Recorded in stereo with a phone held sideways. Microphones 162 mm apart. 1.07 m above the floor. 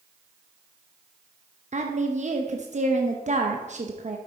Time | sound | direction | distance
1.7 | a woman speaking | 45° right (ahead or behind) | 0.8 m